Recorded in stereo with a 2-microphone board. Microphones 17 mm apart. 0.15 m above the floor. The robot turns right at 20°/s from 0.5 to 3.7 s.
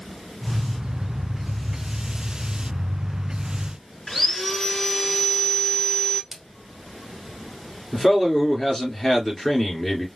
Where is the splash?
25° right (ahead or behind), 1.0 m.